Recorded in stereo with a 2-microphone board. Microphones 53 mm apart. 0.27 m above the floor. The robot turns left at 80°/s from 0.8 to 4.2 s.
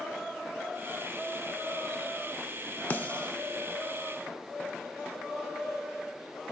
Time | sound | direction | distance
2.9 | a snare drum | 35° left (ahead or behind) | 0.6 m